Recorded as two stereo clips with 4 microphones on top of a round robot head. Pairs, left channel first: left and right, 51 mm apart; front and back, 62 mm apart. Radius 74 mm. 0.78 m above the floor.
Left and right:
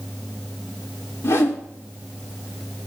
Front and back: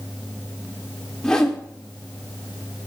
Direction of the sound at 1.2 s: 80° left.